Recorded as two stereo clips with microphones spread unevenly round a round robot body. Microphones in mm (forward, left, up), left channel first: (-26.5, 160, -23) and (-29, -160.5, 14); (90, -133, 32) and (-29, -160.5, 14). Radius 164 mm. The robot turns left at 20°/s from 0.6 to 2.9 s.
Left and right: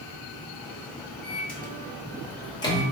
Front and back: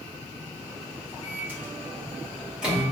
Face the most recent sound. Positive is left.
turn(degrees=130)